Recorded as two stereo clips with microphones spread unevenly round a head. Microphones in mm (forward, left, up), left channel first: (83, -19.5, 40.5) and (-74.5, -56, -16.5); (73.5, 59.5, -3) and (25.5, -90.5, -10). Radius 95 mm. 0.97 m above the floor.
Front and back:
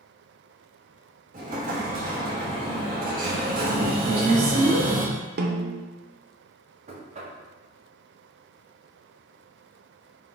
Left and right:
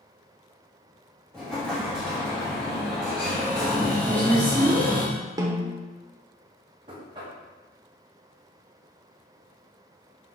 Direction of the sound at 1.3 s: 160° left.